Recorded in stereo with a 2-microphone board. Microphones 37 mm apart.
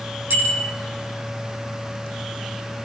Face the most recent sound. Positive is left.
turn(degrees=-70)  # may be behind; listen again after turning